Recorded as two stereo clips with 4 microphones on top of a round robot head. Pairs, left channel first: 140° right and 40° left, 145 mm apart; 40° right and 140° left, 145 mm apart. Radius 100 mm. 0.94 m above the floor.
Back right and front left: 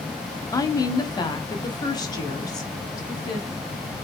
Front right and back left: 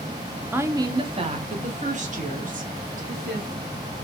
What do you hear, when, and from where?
0.5 s a woman speaking: 160° right, 0.6 m; by 4.1 s 155° left, 2 m